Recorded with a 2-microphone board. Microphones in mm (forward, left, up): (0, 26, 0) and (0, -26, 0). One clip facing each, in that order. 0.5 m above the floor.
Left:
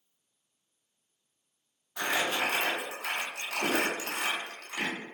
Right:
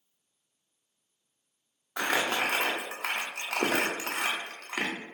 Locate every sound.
2.0 s crumpling: 65° right (ahead or behind), 0.7 m